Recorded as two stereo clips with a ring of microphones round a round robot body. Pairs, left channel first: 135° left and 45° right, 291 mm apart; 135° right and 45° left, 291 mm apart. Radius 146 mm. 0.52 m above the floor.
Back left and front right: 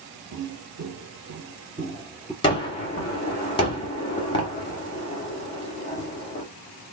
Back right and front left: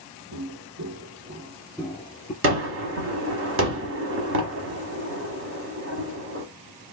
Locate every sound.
0.3 s footsteps: 5° left, 1.0 m; by 2.3 s 135° right, 0.5 m
2.4 s a gunshot: 70° left, 0.9 m